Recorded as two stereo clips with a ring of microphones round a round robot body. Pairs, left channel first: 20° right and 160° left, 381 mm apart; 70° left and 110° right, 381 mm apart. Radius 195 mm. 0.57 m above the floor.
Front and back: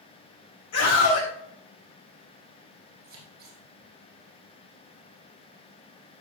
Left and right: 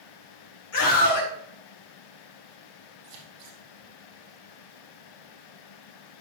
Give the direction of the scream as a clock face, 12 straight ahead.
11 o'clock.